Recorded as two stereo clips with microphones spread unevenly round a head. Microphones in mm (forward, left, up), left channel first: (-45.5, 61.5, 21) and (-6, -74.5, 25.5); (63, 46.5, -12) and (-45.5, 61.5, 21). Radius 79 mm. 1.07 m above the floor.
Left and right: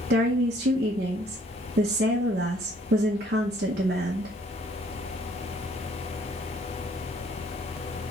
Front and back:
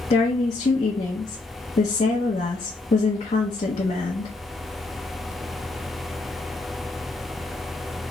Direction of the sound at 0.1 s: 45° right.